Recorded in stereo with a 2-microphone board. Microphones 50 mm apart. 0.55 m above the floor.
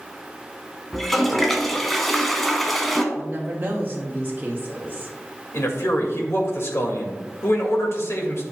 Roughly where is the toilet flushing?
Centre.